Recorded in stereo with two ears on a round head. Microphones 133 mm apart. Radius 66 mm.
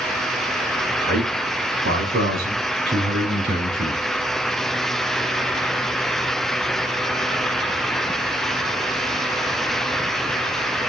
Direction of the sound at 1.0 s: 70° right (ahead or behind).